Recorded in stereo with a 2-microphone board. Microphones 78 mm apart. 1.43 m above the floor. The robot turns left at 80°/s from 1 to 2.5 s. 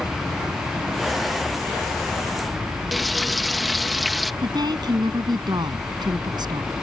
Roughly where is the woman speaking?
Right.